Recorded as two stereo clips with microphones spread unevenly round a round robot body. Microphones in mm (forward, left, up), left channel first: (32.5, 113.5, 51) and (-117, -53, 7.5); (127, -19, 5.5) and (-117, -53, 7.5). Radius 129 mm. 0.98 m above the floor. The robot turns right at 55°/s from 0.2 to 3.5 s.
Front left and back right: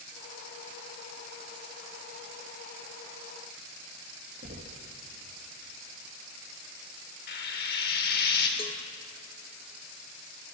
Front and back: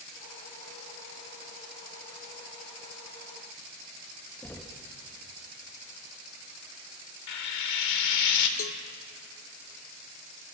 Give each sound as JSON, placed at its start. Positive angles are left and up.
{"t": 4.4, "sound": "knocking", "azimuth_deg": -75, "distance_m": 1.0}
{"t": 7.3, "sound": "frying", "azimuth_deg": -5, "distance_m": 2.0}
{"t": 8.6, "sound": "a cowbell", "azimuth_deg": -25, "distance_m": 0.7}